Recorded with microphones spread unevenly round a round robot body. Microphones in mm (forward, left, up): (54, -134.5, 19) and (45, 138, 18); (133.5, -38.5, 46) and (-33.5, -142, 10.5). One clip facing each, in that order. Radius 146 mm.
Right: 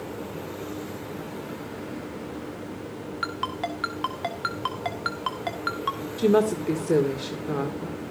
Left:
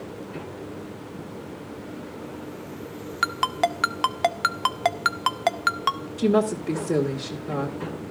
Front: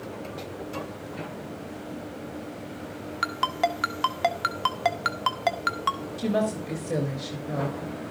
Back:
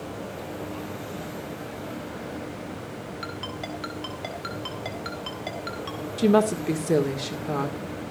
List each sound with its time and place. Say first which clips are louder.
3.2 s a ringtone: left 8 dB, front 6 dB; 80° left, 0.8 m
6.2 s a woman speaking: right 1 dB, back 6 dB; straight behind, 1.9 m